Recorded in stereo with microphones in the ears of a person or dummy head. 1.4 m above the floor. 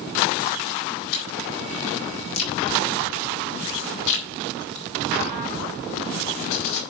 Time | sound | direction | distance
1.1 | chewing | 80° left | 4 m